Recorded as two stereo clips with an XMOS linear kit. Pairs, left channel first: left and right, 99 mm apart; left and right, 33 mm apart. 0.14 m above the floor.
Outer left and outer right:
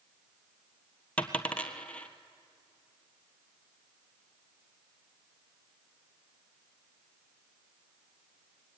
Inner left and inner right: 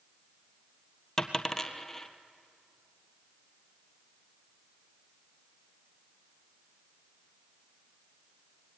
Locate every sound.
1.2 s a dropped coin: 15° left (ahead or behind), 1.3 m